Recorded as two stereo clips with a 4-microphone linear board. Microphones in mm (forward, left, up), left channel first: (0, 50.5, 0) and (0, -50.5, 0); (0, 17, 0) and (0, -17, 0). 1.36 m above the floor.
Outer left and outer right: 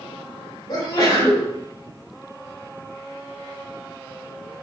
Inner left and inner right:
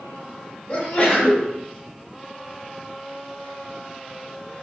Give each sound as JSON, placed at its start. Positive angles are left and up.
{"t": 0.7, "sound": "a sneeze", "side_deg": 35, "distance_m": 1.7}